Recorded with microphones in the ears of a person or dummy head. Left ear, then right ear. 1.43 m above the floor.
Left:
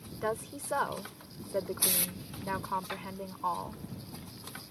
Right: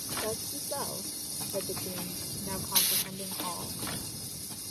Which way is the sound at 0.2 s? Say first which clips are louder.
Left 1 dB; 50° left (ahead or behind).